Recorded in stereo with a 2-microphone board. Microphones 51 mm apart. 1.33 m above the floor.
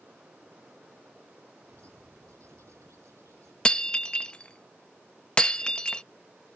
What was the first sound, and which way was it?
A bird, 80° right.